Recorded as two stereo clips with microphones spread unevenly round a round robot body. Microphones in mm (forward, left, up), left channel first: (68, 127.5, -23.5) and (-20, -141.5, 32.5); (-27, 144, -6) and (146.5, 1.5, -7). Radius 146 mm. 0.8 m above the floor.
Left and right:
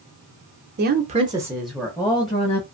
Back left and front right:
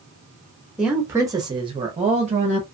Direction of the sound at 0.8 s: 125° right.